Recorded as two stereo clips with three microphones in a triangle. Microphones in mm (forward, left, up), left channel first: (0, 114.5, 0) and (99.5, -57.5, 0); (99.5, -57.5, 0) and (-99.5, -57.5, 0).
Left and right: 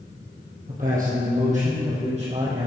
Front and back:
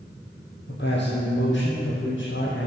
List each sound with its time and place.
0.7 s a man speaking: 20° right, 3 m; by 2.7 s straight ahead, 4.5 m